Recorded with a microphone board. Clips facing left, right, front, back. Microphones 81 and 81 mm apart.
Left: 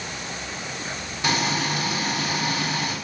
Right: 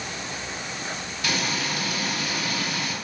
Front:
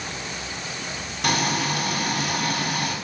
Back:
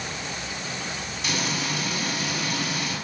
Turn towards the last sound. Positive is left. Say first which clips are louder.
# left 4 dB, front 6 dB
turn(degrees=25)